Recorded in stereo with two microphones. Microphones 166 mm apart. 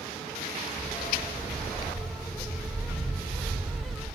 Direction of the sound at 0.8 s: 5° left (ahead or behind).